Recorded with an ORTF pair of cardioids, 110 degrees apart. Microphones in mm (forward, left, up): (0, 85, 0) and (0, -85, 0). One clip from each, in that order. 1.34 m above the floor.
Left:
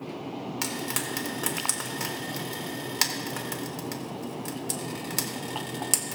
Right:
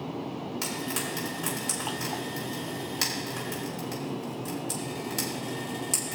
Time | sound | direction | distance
0.6 | frying | 40° left | 2.5 m